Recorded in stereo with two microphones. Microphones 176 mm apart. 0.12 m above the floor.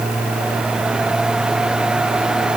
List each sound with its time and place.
Only background noise.